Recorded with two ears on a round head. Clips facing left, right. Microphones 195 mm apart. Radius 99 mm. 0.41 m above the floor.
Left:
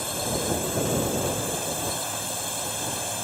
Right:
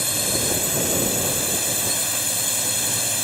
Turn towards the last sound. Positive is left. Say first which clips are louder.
# right 1 dB
turn(degrees=-30)  # may be behind; listen again after turning